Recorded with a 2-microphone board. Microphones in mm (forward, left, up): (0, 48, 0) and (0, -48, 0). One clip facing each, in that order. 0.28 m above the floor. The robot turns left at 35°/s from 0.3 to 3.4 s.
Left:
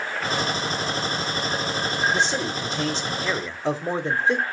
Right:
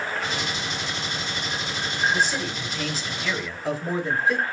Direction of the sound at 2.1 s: 25° left (ahead or behind).